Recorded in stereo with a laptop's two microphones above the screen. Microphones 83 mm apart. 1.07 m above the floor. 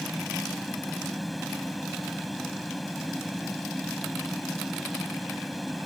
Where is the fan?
Centre (ahead or behind).